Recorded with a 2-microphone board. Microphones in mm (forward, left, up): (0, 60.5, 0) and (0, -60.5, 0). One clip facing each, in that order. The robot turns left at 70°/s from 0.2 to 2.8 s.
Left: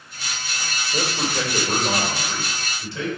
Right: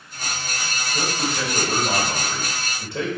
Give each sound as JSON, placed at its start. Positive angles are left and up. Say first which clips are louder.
{"t": 0.9, "sound": "a man speaking", "louder": "left 1 dB", "azimuth_deg": 75, "distance_m": 2.5}